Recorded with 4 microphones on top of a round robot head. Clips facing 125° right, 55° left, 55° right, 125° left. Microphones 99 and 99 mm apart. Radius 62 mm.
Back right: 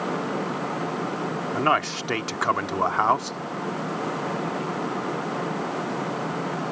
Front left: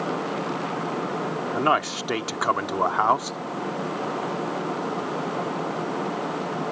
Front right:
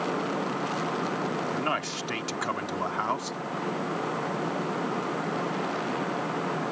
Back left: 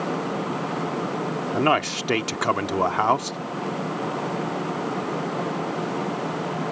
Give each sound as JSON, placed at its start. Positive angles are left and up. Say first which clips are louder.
{"t": 1.5, "sound": "a man speaking", "louder": "even, back left 8 dB", "azimuth_deg": 135}